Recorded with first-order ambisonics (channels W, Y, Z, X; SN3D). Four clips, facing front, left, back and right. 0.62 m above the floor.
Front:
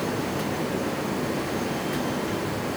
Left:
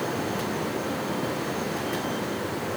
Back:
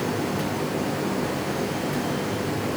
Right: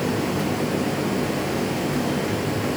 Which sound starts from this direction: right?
Running water, at 0.0 s.